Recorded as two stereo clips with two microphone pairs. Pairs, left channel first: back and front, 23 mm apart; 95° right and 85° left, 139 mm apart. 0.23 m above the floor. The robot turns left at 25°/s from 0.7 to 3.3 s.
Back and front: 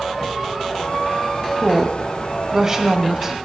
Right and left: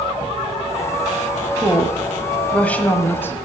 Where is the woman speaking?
5° right, 1.2 m; by 3.4 s 50° right, 1.2 m.